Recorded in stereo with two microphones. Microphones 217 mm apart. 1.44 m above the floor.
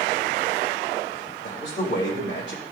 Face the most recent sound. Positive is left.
turn(degrees=60)  # may be behind; listen again after turning